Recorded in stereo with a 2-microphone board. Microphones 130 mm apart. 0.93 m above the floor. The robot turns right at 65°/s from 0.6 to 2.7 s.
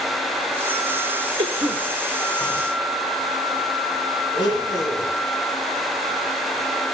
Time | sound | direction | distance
1.4 | a cough | 45° right (ahead or behind) | 3 m
4.3 | a blender | 40° left (ahead or behind) | 8 m